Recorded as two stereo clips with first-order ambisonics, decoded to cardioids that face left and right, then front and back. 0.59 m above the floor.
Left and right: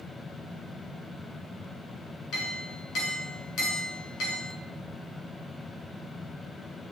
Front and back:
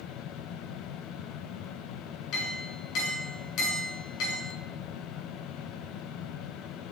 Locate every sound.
2.3 s a clink: 40° left, 6 m